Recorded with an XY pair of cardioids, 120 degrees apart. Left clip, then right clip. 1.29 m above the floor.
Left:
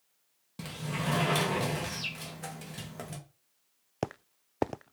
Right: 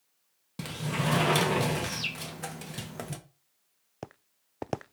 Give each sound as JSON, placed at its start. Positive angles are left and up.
{"t": 0.6, "sound": "a sliding door", "azimuth_deg": -25, "distance_m": 1.3}